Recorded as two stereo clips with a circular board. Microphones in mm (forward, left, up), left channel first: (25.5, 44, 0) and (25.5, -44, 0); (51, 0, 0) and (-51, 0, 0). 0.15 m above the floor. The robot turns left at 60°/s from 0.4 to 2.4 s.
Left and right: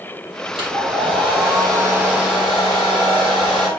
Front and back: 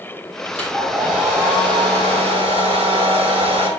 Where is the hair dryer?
70° right, 3.5 m; by 3.7 s 175° left, 3.5 m.